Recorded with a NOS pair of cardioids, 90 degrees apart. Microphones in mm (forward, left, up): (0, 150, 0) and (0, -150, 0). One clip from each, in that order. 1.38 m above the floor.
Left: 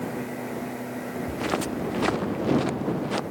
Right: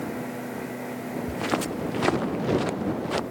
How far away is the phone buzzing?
No phone buzzing in this recording.